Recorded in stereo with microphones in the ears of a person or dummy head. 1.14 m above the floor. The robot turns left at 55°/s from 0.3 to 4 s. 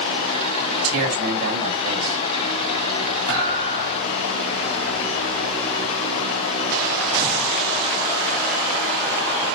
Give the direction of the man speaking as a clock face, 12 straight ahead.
2 o'clock.